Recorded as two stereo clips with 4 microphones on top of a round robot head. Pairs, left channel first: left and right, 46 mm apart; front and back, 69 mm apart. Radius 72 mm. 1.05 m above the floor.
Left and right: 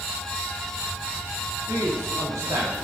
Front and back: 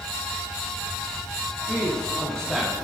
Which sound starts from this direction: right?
A man speaking, at 1.7 s.